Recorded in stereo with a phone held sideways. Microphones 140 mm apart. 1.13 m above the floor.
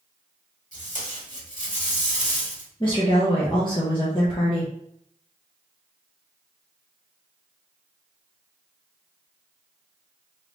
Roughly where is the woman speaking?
Left.